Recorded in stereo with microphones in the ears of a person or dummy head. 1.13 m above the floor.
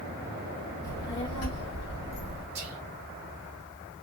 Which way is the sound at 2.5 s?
35° right (ahead or behind).